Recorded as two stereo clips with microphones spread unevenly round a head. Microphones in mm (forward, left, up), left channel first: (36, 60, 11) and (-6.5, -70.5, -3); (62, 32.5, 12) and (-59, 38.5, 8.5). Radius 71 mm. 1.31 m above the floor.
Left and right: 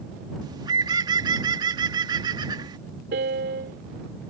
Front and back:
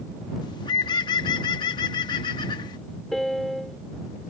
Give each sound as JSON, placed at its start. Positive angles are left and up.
{"t": 0.4, "sound": "a bird", "azimuth_deg": -50}
{"t": 3.1, "sound": "a piano", "azimuth_deg": -90}